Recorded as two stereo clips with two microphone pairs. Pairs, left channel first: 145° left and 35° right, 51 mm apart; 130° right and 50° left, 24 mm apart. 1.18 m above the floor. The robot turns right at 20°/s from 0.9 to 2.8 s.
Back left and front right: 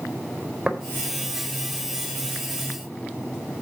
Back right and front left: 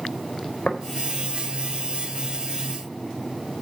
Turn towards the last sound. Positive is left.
turn(degrees=-65)